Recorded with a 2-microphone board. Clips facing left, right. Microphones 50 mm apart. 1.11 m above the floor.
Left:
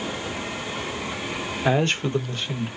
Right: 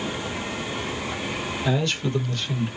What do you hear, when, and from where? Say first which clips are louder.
1.6 s a man speaking: left 4 dB; 45° left (ahead or behind), 0.7 m; by 2.7 s 15° left (ahead or behind), 1.1 m